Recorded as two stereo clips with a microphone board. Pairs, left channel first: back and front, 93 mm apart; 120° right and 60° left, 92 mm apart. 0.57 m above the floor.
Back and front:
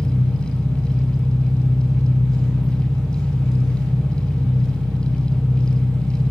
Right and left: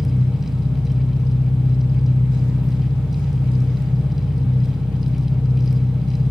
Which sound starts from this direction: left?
An engine running, at 0.0 s.